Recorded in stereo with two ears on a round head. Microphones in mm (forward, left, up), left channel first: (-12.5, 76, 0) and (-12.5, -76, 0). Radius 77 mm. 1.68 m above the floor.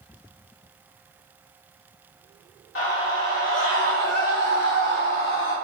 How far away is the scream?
About 3.5 m.